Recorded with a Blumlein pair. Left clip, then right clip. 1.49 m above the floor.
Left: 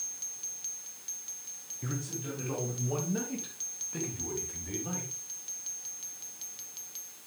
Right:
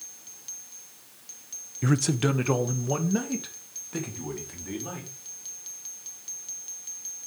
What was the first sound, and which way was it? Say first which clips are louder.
A man speaking: right 14 dB; 30° right.